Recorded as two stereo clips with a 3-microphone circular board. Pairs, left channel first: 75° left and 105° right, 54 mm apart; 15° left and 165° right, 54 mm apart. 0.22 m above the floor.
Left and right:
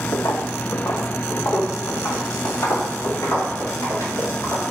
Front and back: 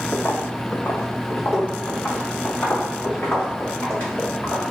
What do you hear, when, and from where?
0.1 s footsteps: 65° left, 0.5 m; by 4.7 s 75° left, 3.5 m